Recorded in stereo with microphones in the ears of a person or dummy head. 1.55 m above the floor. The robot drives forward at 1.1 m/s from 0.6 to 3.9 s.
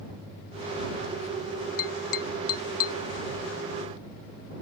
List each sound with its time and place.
1.8 s tapping: 60° left (ahead or behind); by 3.0 s 65° left (ahead or behind)